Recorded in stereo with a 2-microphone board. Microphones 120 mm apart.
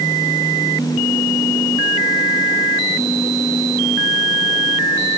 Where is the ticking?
I don't hear ticking.